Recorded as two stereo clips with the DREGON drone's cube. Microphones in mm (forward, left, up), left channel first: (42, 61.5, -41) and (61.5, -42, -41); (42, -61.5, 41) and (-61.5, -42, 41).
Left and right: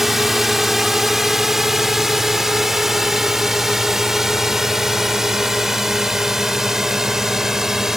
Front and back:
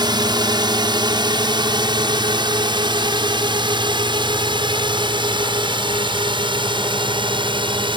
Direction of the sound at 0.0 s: 165° right.